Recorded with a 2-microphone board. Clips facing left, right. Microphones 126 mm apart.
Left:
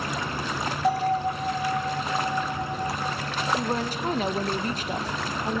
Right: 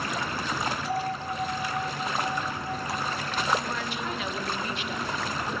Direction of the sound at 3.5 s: 40° left (ahead or behind).